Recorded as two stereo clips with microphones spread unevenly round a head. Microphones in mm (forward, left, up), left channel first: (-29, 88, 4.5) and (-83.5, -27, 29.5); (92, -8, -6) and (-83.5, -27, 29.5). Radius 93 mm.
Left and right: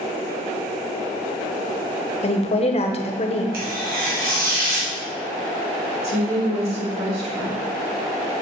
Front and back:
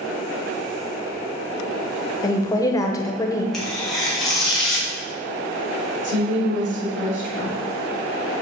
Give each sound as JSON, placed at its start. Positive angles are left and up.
{"t": 2.2, "sound": "a woman speaking", "azimuth_deg": 70, "distance_m": 0.9}
{"t": 3.5, "sound": "tearing paper", "azimuth_deg": -80, "distance_m": 1.9}
{"t": 6.0, "sound": "a woman speaking", "azimuth_deg": -150, "distance_m": 3.5}